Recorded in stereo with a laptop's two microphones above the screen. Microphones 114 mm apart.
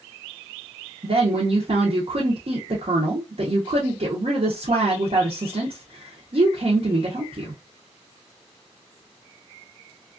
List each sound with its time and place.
1.0 s a woman speaking: 60° right (ahead or behind), 0.7 m